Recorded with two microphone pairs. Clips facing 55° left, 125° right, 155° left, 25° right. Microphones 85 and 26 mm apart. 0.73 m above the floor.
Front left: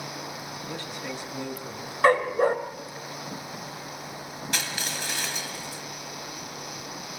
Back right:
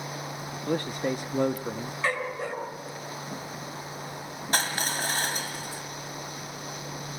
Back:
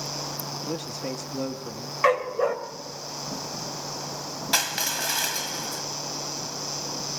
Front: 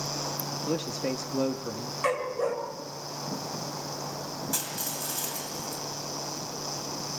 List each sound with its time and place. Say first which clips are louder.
0.7 s a man speaking: back right 10 dB, front 4 dB; 105° right, 0.8 m
2.0 s a dog barking: front left 11 dB, back 6 dB; 95° left, 1.5 m
4.5 s crushing: back right 5 dB, back 8 dB; 170° right, 1.5 m